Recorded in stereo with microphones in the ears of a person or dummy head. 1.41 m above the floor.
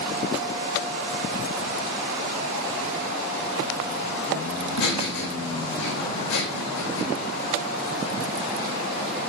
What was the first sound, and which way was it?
Laughter, 70° left (ahead or behind).